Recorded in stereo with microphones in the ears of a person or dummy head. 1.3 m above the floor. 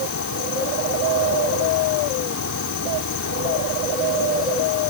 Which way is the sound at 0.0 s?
85° left.